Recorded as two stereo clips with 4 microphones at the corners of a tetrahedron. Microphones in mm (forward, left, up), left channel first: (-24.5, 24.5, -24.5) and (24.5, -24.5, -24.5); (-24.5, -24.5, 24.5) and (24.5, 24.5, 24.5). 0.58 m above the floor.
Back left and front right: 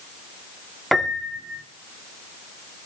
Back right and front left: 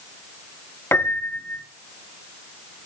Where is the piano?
140° right, 1.3 m.